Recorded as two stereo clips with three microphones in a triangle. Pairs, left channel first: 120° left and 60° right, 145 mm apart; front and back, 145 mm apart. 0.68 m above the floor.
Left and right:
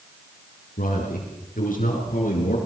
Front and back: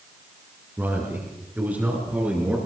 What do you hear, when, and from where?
0.8 s a man speaking: 105° left, 7.5 m; by 2.6 s 100° left, 8.5 m